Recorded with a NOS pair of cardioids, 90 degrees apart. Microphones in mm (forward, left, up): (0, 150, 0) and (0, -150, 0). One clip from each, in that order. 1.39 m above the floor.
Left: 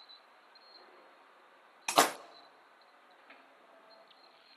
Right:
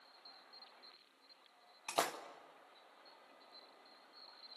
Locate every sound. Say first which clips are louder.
1.9 s a splash: left 10 dB; 50° left, 0.6 m